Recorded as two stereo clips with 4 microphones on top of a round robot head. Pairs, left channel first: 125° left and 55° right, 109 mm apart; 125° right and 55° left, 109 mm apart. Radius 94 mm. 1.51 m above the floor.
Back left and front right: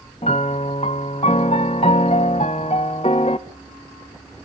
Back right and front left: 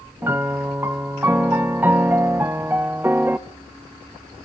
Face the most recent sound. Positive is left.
turn(degrees=125)